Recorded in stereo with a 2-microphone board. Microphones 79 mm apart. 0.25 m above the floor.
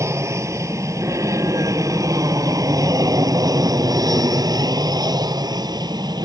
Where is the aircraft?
35° right (ahead or behind); by 6.2 s 55° right (ahead or behind).